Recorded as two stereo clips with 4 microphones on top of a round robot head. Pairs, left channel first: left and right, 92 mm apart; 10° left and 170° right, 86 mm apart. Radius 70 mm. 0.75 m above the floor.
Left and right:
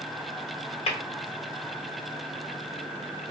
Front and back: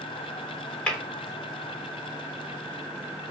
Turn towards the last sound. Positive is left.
turn(degrees=85)